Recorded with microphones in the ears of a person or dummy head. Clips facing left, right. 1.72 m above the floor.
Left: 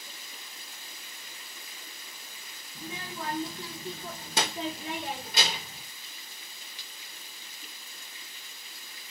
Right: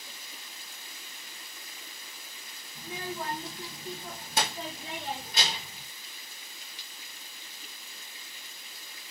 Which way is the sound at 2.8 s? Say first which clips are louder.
Right 2 dB; 50° left (ahead or behind).